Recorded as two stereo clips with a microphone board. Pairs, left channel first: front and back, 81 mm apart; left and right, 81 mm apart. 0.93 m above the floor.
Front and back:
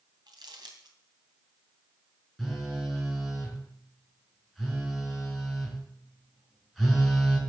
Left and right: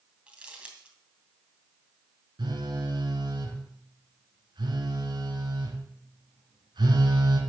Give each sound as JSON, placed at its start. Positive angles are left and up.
{"t": 0.3, "sound": "crumpling", "azimuth_deg": -165, "distance_m": 3.0}
{"t": 2.4, "sound": "a phone buzzing", "azimuth_deg": -90, "distance_m": 4.0}